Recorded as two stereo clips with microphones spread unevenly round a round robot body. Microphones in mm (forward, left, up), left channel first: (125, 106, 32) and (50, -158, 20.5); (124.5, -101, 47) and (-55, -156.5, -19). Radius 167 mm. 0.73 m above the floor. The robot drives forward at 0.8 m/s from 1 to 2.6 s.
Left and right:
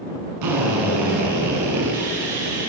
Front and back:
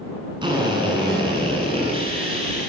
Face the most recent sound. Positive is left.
turn(degrees=-105)